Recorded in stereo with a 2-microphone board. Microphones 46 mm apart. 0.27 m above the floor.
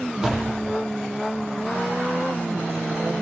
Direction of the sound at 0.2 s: 15° right (ahead or behind).